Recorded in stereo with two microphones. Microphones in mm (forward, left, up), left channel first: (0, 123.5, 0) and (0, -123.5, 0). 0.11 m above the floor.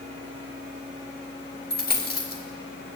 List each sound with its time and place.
1.7 s a dropped coin: 40° left (ahead or behind), 1.4 m